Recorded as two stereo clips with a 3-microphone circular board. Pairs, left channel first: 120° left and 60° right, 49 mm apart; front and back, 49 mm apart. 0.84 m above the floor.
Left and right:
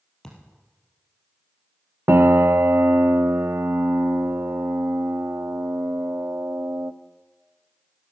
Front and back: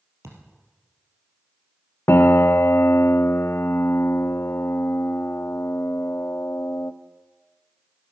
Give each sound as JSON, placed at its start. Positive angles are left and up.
{"t": 0.2, "sound": "a thud", "azimuth_deg": -160, "distance_m": 3.5}
{"t": 2.1, "sound": "a piano", "azimuth_deg": -35, "distance_m": 0.5}